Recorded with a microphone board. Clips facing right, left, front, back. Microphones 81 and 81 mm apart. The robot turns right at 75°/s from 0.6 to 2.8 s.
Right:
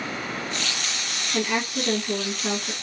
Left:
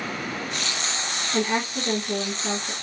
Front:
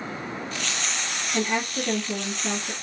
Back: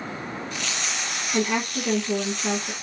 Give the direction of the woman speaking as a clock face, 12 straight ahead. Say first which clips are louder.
Left 1 dB, back 2 dB; 8 o'clock.